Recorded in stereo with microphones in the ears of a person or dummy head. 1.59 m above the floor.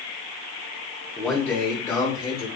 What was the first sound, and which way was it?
A man speaking, centre (ahead or behind).